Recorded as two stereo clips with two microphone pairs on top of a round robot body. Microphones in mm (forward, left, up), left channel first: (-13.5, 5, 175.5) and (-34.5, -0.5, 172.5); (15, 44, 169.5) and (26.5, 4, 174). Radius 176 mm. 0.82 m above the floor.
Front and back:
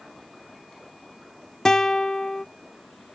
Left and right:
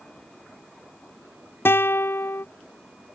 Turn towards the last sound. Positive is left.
turn(degrees=80)